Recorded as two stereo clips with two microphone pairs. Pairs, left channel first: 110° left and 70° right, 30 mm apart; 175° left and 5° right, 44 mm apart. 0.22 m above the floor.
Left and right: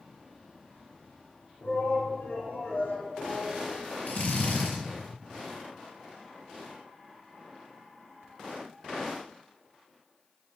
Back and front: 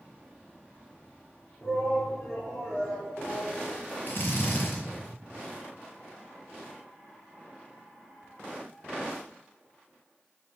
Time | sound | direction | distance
1.6 | a shout | 125° left | 7.5 m
4.1 | a drill | 135° left | 6 m